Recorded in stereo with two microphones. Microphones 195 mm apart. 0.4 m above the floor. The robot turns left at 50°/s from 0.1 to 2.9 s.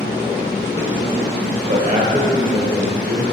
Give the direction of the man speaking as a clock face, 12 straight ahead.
4 o'clock.